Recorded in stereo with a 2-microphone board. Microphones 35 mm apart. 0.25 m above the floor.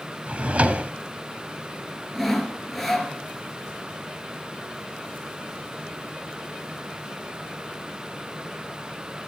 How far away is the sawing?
About 2 m.